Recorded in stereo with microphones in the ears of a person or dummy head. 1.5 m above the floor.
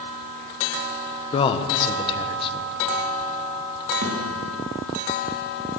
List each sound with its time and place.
1.3 s a man speaking: 25° left (ahead or behind), 1.3 m
4.0 s a thud: 50° right (ahead or behind), 3.5 m